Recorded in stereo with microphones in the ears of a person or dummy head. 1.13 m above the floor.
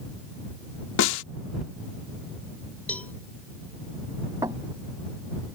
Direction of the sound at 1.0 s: 80° left.